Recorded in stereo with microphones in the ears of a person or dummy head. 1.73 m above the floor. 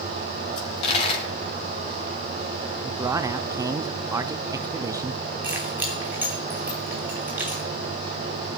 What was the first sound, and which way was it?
A dropped coin, 30° left (ahead or behind).